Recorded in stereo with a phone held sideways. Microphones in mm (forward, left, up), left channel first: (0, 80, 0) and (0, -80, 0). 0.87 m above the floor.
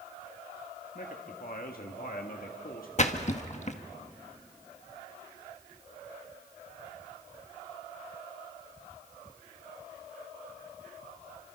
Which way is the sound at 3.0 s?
45° left (ahead or behind).